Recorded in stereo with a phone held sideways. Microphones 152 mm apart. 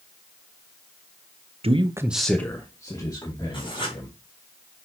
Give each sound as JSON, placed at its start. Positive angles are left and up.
{"t": 1.6, "sound": "a man speaking", "side_deg": -40, "distance_m": 0.8}
{"t": 3.5, "sound": "writing", "side_deg": 35, "distance_m": 2.5}